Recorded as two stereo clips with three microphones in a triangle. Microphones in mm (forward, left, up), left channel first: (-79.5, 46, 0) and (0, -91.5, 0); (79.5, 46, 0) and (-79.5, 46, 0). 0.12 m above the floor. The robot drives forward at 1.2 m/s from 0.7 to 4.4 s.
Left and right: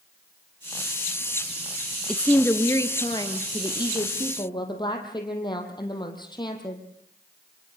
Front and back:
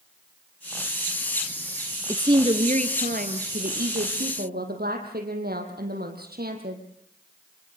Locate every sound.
2.1 s a woman speaking: 165° right, 1.1 m; by 6.8 s straight behind, 3.5 m